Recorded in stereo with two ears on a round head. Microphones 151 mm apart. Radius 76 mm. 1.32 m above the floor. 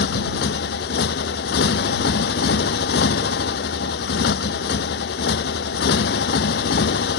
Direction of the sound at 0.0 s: 65° left (ahead or behind).